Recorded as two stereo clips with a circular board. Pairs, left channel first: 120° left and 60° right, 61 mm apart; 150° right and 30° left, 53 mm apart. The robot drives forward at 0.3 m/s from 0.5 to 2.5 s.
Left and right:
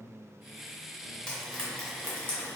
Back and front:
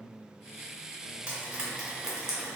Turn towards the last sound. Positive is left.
turn(degrees=100)